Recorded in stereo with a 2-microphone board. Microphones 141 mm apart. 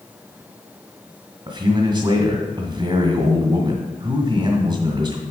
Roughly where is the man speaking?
Right.